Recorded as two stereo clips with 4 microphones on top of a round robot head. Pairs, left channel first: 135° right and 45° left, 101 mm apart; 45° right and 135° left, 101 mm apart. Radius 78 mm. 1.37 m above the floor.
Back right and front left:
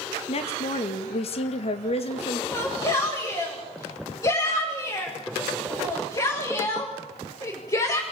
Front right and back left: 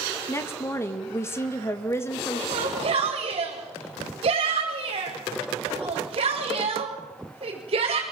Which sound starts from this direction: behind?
A shout, at 2.5 s.